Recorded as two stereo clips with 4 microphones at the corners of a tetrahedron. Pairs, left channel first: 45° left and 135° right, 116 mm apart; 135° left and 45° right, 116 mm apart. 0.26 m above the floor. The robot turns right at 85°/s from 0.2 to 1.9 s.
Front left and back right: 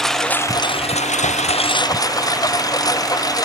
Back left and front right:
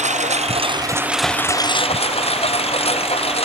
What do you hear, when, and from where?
0.0 s a lawn mower: 45° right; by 3.5 s 100° left